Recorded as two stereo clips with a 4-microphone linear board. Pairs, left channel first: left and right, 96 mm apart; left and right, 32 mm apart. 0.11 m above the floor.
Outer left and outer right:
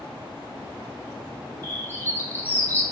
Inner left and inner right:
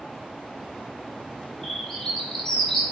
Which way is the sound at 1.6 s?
20° left (ahead or behind).